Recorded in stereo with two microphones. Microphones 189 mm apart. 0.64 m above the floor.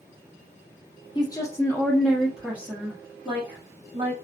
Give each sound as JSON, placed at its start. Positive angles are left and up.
{"t": 1.1, "sound": "a woman speaking", "side_deg": 20, "distance_m": 0.7}